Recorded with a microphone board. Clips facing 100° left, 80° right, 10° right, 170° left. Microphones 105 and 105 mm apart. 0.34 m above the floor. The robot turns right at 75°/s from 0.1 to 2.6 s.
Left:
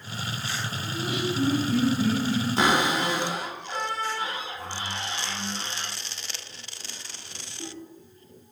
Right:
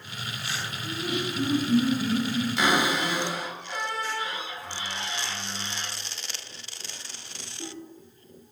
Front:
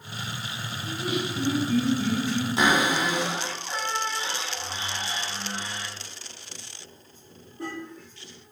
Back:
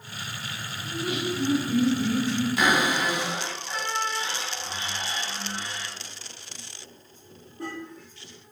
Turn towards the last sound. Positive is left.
turn(degrees=55)